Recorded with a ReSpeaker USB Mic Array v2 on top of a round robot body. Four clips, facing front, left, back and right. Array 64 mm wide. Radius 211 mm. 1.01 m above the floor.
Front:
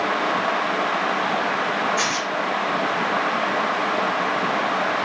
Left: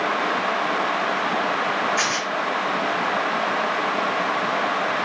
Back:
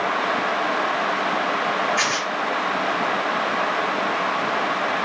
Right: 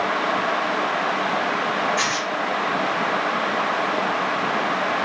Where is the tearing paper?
140° left, 1.0 m.